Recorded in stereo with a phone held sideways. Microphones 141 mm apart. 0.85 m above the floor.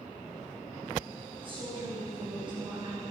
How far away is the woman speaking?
About 5.5 m.